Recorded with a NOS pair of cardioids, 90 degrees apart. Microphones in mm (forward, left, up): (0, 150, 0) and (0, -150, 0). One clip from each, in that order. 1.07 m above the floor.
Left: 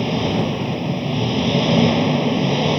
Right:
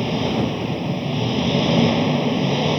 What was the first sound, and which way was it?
An engine running, 15° left.